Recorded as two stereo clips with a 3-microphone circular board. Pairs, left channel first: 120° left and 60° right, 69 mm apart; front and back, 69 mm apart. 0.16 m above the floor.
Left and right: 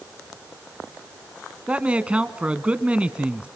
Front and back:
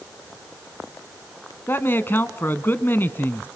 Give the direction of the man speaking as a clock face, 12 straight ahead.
12 o'clock.